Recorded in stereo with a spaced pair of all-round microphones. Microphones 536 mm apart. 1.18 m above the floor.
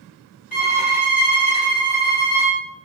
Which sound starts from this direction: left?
A violin, at 0.5 s.